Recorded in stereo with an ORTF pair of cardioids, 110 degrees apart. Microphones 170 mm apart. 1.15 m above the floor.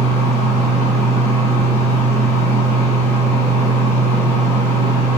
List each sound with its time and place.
0.0 s a fan: 15° left, 0.7 m